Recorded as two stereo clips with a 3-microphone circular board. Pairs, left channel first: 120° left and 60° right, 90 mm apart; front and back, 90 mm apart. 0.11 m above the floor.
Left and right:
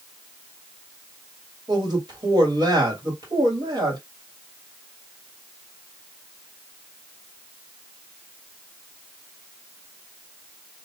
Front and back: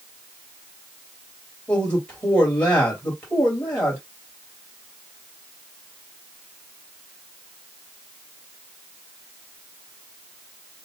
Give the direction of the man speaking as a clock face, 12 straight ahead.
2 o'clock.